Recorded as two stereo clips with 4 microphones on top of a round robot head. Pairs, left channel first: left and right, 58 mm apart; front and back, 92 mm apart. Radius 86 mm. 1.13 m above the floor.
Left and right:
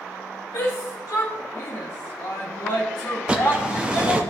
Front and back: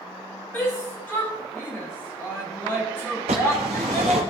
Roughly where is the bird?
Behind.